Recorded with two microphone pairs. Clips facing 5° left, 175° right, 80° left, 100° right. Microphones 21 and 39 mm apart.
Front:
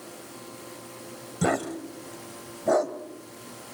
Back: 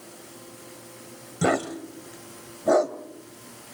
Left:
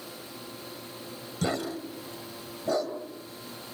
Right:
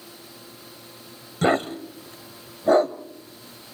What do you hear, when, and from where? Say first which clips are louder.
1.4 s a dog barking: back 2 dB, right 9 dB; 125° right, 1.2 m